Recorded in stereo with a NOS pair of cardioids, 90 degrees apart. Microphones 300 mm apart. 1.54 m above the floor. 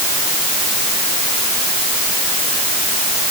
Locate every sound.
Only background noise.